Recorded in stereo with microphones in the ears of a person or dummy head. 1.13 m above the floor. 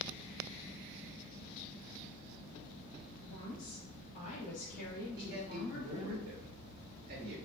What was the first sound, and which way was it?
A woman speaking, 15° left (ahead or behind).